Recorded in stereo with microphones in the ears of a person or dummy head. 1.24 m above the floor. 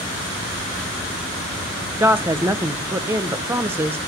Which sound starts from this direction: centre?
A woman speaking, at 2.0 s.